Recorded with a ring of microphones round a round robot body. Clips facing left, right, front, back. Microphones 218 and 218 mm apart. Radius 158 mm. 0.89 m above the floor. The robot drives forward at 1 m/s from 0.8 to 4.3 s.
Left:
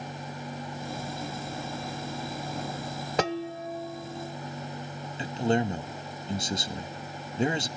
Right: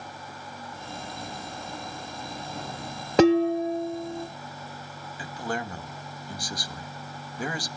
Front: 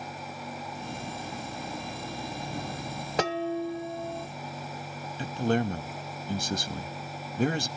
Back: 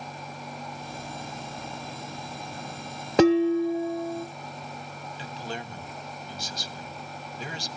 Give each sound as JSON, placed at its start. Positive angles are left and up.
{"t": 3.2, "sound": "dishes clattering", "azimuth_deg": -135, "distance_m": 0.5}
{"t": 5.2, "sound": "a man speaking", "azimuth_deg": 25, "distance_m": 1.6}